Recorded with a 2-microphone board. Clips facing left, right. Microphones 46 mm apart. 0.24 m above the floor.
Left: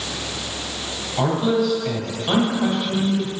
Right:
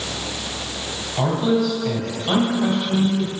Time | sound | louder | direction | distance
1.2 | a man speaking | even | 10° left (ahead or behind) | 1.5 m